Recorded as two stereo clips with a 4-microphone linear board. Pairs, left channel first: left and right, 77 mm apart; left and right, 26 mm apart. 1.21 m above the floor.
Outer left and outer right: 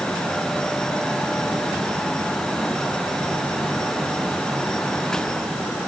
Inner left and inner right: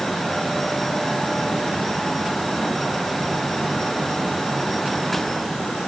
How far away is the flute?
No flute in this recording.